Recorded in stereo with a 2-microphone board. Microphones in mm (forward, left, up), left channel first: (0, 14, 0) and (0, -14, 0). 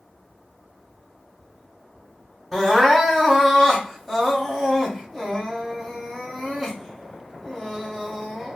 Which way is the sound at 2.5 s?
5° right (ahead or behind).